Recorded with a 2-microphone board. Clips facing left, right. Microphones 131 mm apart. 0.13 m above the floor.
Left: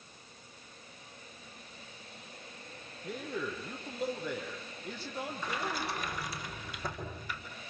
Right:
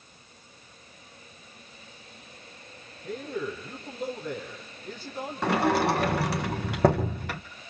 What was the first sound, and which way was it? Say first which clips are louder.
A man speaking: right 5 dB; 5° left (ahead or behind).